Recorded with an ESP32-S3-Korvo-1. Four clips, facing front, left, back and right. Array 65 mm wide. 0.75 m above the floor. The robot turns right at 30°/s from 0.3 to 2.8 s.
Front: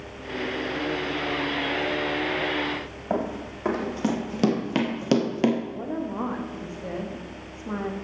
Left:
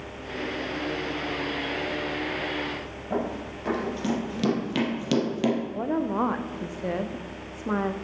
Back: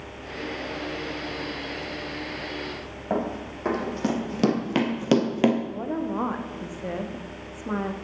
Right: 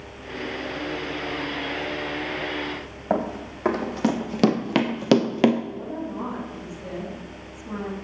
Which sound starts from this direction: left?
A woman speaking, at 5.7 s.